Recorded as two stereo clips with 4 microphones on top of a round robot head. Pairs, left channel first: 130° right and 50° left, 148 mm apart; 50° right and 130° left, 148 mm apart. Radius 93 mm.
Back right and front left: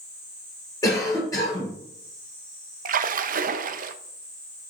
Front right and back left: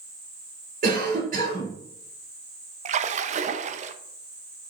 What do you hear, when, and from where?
0.8 s a cough: 160° left, 4.5 m
2.9 s a splash: 85° left, 0.6 m